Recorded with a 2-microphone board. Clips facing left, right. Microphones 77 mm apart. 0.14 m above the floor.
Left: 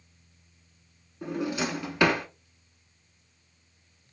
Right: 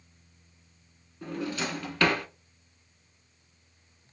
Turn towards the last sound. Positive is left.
turn(degrees=15)  # may be behind; listen again after turning